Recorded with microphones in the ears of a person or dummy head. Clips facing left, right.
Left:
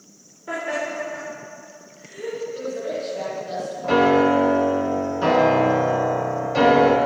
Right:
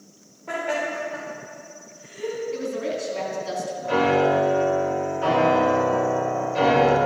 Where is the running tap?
I don't hear a running tap.